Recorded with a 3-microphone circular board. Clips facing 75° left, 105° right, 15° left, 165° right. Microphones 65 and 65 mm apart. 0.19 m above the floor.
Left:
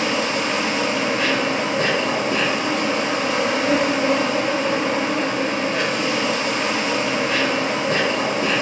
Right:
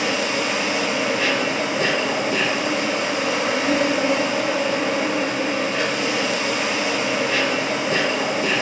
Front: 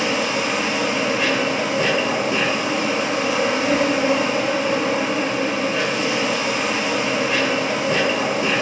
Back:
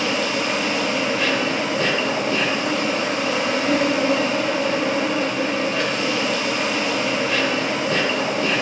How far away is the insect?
About 3 m.